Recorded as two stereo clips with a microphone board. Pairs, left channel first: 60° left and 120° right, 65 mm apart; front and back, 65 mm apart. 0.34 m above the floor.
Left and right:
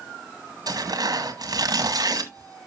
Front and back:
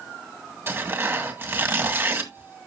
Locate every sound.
0.7 s tearing paper: 130° right, 1.9 m